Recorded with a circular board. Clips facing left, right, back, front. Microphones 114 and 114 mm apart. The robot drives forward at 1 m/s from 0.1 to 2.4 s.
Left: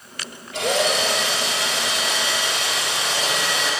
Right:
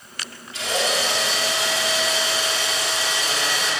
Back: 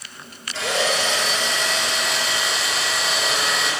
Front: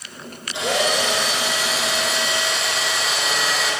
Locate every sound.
0.5 s a drill: 70° left, 5.5 m; by 3.7 s 90° left, 5.5 m